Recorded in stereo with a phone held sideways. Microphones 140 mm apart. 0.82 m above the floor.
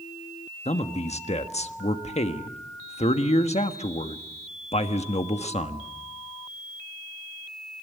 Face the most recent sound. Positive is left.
turn(degrees=50)  # may be behind; listen again after turning